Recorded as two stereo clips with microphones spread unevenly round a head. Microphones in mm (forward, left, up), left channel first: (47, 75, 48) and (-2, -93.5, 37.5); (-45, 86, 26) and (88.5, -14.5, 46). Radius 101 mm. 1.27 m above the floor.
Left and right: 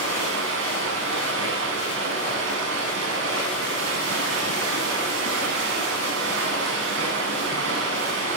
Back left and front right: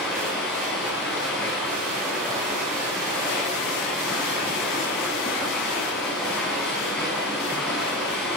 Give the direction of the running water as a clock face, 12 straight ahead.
4 o'clock.